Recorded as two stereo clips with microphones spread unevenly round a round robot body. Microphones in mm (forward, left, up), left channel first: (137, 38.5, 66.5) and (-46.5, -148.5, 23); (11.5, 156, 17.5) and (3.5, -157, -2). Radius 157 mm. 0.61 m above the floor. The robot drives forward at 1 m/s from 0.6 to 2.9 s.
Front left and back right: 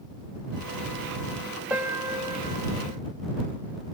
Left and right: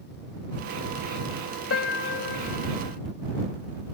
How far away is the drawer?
I don't hear a drawer.